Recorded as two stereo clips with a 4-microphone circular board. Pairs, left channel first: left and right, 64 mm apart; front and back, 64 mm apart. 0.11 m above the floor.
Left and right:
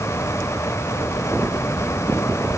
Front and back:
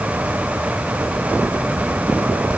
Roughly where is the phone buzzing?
I don't hear a phone buzzing.